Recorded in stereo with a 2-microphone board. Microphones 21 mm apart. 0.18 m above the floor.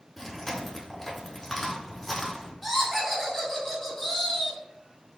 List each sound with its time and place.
0.2 s chewing: 20° left (ahead or behind), 0.9 m
2.6 s laughter: 20° left (ahead or behind), 1.2 m